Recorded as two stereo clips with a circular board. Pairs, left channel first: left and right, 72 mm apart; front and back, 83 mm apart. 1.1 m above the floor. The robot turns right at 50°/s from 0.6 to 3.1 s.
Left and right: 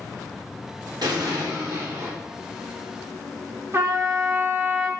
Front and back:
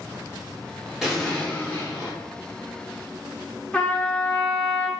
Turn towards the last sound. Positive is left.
turn(degrees=-70)